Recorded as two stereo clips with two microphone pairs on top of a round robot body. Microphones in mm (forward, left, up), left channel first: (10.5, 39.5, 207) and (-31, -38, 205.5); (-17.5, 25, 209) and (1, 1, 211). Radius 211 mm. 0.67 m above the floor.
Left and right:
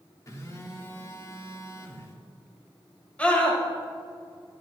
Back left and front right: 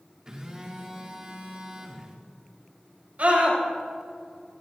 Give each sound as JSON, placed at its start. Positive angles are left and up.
{"t": 0.3, "sound": "a phone buzzing", "azimuth_deg": 15, "distance_m": 2.5}
{"t": 3.2, "sound": "a scream", "azimuth_deg": -15, "distance_m": 5.5}